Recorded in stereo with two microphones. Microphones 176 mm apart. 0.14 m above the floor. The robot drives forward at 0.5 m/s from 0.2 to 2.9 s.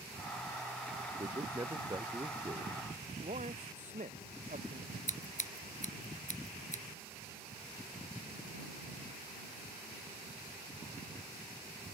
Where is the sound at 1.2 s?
20° right (ahead or behind).